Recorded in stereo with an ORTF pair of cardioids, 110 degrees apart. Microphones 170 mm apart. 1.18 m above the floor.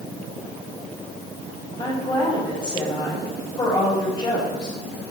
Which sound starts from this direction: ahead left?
A woman speaking, at 1.8 s.